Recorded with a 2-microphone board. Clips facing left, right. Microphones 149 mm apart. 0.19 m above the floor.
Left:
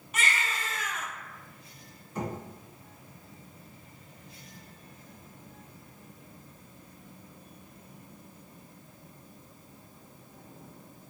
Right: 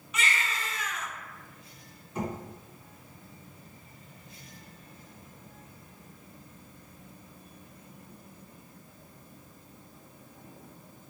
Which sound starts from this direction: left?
A baby crying, at 0.1 s.